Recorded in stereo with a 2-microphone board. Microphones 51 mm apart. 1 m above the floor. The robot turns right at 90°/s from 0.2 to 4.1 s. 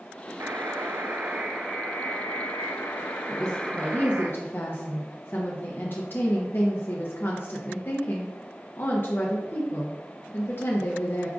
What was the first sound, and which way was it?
A buzzer, 120° right.